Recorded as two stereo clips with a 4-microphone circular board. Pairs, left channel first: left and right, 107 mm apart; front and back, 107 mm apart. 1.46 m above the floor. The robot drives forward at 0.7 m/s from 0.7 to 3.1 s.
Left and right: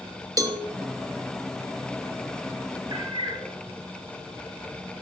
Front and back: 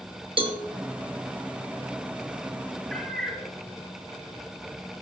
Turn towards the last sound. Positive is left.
turn(degrees=-85)